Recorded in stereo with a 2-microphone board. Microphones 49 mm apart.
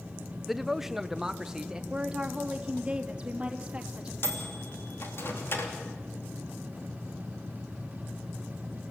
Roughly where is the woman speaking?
Centre.